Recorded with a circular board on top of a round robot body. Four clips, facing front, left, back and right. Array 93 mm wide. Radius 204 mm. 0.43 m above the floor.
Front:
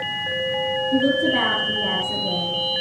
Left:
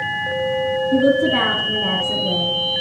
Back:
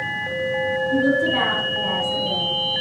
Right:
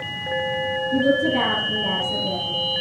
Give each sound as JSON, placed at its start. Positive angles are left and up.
{"t": 0.9, "sound": "a woman speaking", "azimuth_deg": 95, "distance_m": 5.5}